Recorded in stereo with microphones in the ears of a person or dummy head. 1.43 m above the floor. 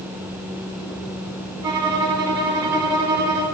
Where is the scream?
I don't hear a scream.